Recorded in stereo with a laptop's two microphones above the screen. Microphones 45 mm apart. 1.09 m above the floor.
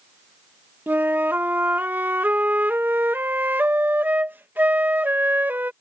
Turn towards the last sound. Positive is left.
turn(degrees=-45)  # may be behind; listen again after turning